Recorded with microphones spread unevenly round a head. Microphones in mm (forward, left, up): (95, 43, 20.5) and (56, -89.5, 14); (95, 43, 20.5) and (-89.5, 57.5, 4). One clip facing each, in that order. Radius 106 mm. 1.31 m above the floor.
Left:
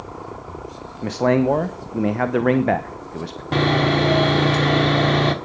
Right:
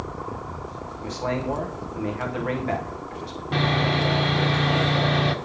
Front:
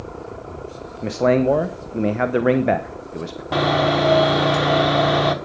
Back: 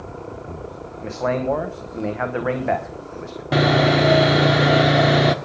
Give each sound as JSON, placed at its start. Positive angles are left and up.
{"t": 1.0, "sound": "a man speaking", "azimuth_deg": 45, "distance_m": 1.0}
{"t": 3.5, "sound": "sawing", "azimuth_deg": 105, "distance_m": 1.2}